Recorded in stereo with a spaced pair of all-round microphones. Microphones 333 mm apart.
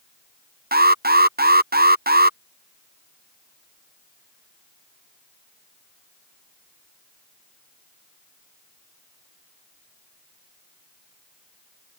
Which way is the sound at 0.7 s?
30° right (ahead or behind).